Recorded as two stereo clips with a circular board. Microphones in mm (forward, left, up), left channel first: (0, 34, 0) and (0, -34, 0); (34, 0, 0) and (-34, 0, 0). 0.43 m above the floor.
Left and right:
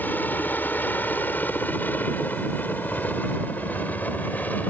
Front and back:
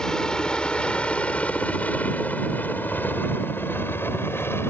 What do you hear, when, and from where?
0.0 s a helicopter: 70° left; by 4.7 s 35° left